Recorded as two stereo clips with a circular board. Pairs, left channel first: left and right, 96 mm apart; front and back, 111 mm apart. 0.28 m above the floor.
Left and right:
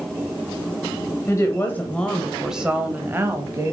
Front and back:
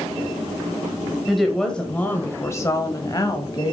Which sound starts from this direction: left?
A woman speaking, at 1.3 s.